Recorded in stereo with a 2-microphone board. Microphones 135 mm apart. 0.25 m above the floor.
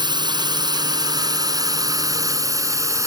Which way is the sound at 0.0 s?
35° right (ahead or behind).